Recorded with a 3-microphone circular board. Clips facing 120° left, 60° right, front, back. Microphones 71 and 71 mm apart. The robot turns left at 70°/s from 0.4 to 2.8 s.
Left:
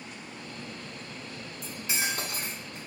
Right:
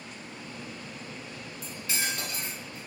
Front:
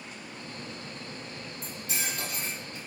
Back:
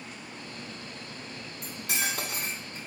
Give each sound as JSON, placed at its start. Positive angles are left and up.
{"t": 1.6, "sound": "cutlery clinking", "azimuth_deg": -150, "distance_m": 1.1}